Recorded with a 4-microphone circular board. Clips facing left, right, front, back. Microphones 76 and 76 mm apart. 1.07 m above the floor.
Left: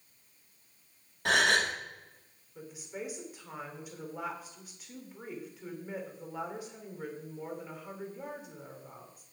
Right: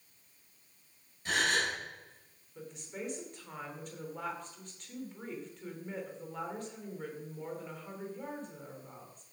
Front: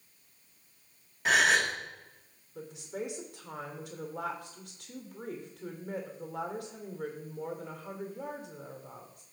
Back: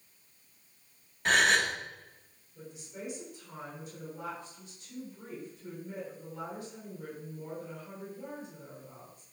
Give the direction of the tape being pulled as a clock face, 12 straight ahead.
No tape being pulled in this recording.